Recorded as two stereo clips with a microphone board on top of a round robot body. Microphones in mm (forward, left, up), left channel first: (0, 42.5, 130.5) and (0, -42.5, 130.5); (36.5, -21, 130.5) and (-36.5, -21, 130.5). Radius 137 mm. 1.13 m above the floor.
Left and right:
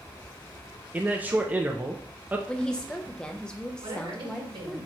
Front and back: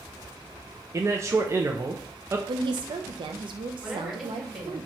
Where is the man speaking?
150° right, 0.7 m.